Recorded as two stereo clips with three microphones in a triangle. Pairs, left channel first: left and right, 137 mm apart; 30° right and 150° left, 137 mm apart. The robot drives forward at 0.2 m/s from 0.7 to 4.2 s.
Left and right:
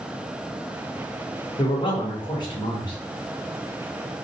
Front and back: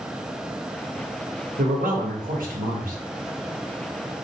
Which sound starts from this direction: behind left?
A man speaking, at 1.6 s.